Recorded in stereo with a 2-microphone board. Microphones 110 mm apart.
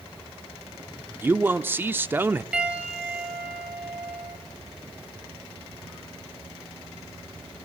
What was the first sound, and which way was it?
A man speaking, 20° right (ahead or behind).